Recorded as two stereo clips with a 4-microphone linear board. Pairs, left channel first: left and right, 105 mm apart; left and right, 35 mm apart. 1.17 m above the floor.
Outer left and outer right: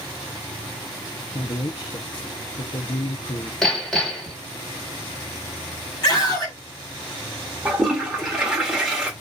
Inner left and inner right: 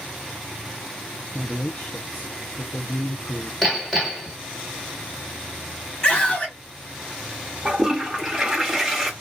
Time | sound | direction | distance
1.3 | a man speaking | 55° left (ahead or behind) | 0.7 m
3.6 | hammering | 5° left (ahead or behind) | 1.4 m
6.0 | a scream | 40° left (ahead or behind) | 1.4 m
7.7 | a toilet flushing | 5° right (ahead or behind) | 1.1 m